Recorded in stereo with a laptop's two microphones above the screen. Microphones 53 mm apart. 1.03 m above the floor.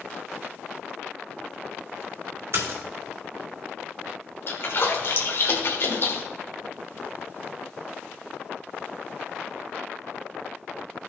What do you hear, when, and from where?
2.5 s a splash: 65° right (ahead or behind), 3 m
4.5 s a splash: 55° left (ahead or behind), 1.6 m